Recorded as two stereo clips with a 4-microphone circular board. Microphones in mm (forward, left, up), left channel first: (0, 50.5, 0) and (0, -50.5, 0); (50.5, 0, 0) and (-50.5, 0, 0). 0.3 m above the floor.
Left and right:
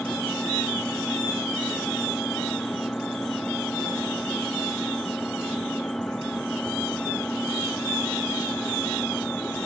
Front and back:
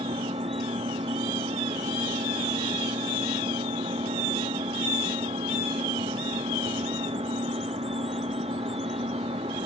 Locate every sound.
0.0 s an engine running: 170° left